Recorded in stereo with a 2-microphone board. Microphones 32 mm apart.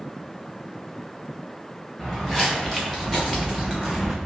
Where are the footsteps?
10° left (ahead or behind), 1.8 m.